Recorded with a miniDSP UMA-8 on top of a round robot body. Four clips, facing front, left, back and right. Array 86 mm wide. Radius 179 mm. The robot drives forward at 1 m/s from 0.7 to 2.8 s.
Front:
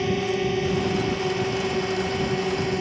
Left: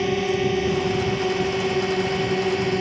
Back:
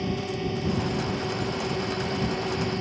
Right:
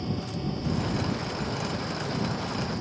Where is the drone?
60° left; by 2.8 s 70° left.